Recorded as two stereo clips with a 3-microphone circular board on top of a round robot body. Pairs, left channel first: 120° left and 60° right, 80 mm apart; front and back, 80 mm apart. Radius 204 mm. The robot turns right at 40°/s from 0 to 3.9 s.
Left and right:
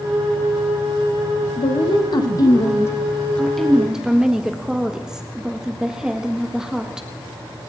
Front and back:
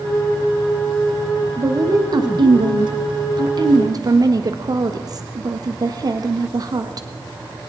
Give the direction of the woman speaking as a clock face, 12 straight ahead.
8 o'clock.